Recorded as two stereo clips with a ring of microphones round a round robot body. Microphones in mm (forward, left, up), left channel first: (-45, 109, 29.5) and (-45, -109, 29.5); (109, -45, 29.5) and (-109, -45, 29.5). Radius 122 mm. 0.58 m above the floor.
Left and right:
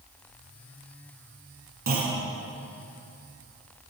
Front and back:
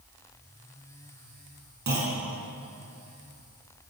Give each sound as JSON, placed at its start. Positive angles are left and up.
{"t": 1.9, "sound": "a clunk", "azimuth_deg": -140, "distance_m": 5.0}